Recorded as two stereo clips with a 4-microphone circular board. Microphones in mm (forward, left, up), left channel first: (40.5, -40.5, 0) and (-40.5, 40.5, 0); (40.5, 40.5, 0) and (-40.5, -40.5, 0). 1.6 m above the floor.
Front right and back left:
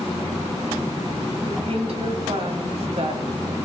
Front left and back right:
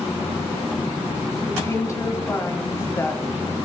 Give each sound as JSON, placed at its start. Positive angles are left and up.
{"t": 1.4, "sound": "a woman speaking", "azimuth_deg": 110, "distance_m": 1.8}